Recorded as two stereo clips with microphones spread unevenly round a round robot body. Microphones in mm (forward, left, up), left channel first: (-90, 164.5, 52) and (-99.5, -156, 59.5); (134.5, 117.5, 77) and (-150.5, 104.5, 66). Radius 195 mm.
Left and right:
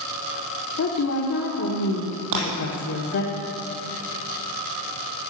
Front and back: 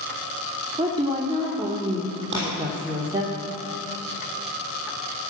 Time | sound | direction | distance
0.8 | a woman speaking | 115° left | 1.6 m
2.3 | breaking glass | 115° right | 5 m